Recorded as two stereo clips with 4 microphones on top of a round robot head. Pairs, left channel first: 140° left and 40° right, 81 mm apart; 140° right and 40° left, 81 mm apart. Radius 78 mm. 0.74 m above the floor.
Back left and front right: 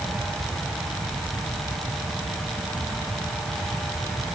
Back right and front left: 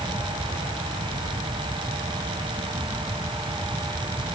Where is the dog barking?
I don't hear a dog barking.